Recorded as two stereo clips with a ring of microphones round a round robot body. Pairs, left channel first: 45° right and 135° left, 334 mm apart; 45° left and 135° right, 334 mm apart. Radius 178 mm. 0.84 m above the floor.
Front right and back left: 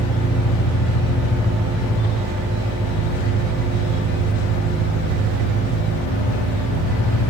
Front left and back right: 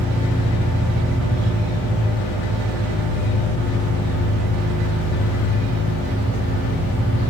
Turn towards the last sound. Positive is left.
turn(degrees=150)